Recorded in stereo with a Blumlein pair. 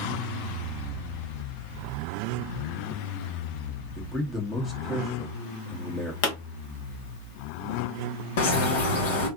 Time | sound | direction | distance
4.0 | a man speaking | 15° left | 1.6 m
6.2 | a pop | 45° left | 1.5 m
8.4 | a bird | 55° left | 1.4 m